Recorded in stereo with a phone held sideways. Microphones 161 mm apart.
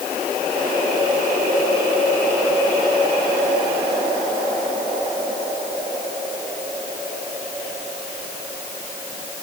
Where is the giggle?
No giggle in this recording.